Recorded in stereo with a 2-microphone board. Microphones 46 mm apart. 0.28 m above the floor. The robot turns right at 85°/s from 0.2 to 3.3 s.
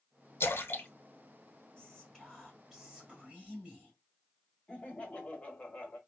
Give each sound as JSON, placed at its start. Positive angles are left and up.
{"t": 0.4, "sound": "a splash", "side_deg": 70, "distance_m": 0.8}
{"t": 1.8, "sound": "whispering", "side_deg": 20, "distance_m": 1.4}
{"t": 4.7, "sound": "laughter", "side_deg": 30, "distance_m": 0.9}